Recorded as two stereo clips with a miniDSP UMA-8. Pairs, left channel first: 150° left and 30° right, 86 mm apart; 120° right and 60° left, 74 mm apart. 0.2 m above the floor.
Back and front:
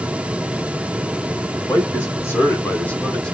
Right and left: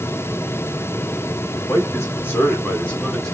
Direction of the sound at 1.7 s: 165° right.